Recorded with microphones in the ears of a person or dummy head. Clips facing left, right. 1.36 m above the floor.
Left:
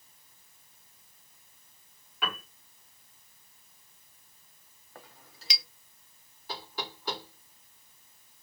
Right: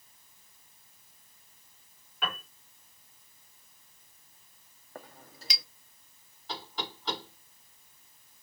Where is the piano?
5° left (ahead or behind), 3 m.